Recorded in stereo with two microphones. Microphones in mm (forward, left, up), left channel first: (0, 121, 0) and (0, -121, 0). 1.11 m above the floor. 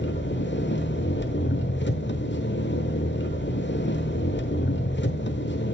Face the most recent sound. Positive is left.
turn(degrees=45)  # may be behind; listen again after turning